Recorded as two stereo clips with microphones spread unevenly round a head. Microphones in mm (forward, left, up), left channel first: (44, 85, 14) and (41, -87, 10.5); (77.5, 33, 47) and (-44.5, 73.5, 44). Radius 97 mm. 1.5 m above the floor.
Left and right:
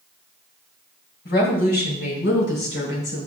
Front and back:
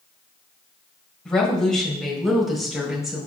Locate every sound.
1.2 s a woman speaking: 65° left, 5 m; by 3.3 s 75° left, 6 m